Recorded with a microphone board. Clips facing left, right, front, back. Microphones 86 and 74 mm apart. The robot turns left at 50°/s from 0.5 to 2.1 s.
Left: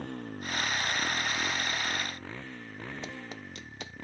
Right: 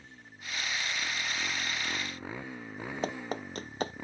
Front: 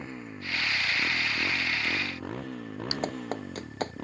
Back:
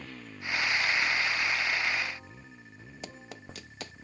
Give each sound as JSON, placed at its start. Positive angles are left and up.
{"t": 0.0, "sound": "a motorcycle", "azimuth_deg": 65}
{"t": 3.0, "sound": "running footsteps", "azimuth_deg": -45}